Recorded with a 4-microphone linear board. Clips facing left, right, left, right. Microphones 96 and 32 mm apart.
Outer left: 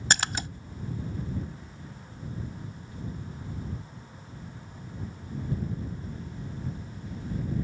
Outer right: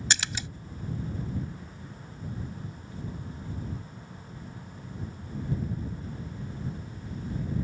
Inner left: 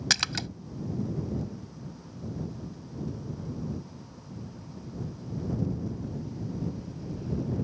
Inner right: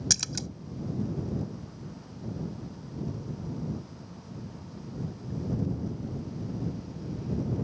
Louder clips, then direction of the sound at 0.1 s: Outer left 5 dB, inner left 7 dB; 50° left (ahead or behind).